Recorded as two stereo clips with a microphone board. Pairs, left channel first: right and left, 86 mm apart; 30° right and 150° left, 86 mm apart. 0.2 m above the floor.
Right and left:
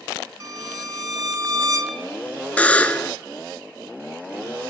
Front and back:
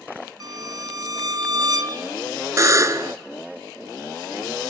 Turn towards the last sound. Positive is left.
turn(degrees=-160)